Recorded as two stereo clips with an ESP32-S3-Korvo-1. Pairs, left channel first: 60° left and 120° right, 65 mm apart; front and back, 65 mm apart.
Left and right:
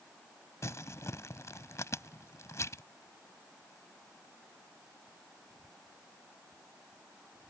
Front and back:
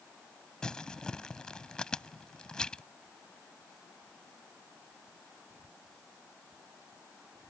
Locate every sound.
0.6 s crumpling: 75° left